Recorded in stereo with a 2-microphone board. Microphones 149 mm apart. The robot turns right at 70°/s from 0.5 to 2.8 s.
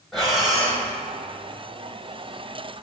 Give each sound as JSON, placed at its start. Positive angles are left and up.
{"t": 0.1, "sound": "breathing", "side_deg": 0, "distance_m": 1.4}